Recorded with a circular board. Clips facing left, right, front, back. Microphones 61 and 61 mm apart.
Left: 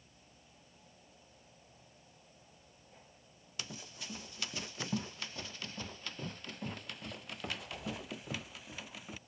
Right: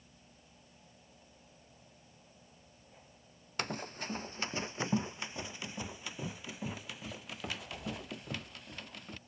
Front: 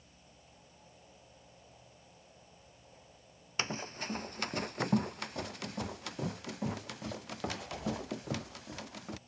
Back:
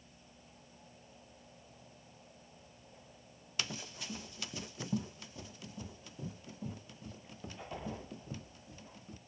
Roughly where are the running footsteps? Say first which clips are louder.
Right 9 dB, front 5 dB; ahead right.